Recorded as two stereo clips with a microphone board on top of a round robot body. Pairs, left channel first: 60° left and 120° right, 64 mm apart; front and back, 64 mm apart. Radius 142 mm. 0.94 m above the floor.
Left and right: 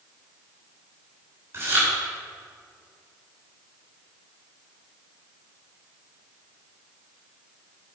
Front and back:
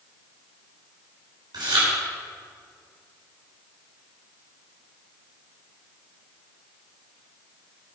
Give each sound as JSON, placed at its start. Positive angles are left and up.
{"t": 1.5, "sound": "chewing", "azimuth_deg": -170, "distance_m": 3.5}